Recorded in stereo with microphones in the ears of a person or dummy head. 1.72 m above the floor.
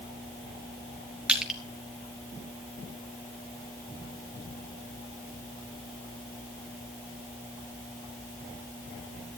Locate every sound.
1.3 s crushing: 5° right (ahead or behind), 2 m